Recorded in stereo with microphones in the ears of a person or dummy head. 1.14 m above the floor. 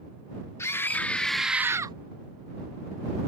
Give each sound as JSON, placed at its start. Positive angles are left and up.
{"t": 0.6, "sound": "a scream", "side_deg": 10}